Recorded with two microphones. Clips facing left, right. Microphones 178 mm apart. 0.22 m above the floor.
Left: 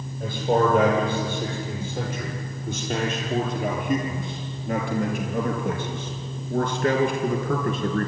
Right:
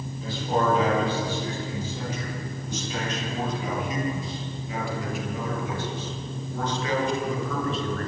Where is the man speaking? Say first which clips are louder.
Left 4 dB; 55° left (ahead or behind), 8 m.